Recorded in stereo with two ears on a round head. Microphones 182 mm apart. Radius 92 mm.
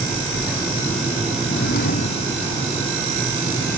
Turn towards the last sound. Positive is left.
turn(degrees=40)  # may be behind; listen again after turning